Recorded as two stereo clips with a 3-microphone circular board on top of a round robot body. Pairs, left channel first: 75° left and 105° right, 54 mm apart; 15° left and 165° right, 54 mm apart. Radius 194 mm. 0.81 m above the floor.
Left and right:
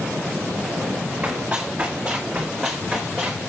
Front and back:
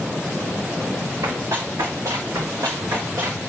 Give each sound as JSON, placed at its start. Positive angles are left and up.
{"t": 1.2, "sound": "running footsteps", "azimuth_deg": -170, "distance_m": 3.5}